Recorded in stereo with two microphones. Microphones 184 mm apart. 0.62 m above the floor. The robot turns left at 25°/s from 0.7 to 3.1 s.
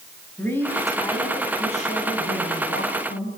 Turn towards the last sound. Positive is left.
turn(degrees=110)